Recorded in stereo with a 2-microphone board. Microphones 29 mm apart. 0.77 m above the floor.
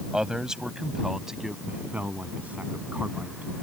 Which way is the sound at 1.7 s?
70° right (ahead or behind).